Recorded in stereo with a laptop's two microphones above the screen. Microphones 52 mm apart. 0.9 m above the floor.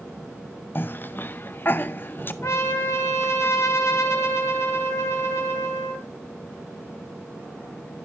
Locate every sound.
0.8 s a cough: 40° left (ahead or behind), 0.5 m
2.4 s a trumpet: 65° left (ahead or behind), 1.8 m